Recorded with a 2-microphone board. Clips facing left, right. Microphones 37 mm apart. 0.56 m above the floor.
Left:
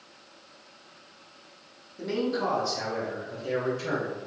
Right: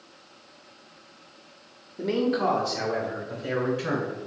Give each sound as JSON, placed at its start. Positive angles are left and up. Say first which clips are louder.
{"t": 2.0, "sound": "a man speaking", "louder": "right 4 dB", "side_deg": -20, "distance_m": 0.7}